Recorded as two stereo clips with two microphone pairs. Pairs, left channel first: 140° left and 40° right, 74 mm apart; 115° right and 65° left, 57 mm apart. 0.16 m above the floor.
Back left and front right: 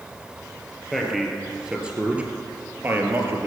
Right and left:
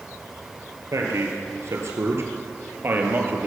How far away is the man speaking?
About 3 m.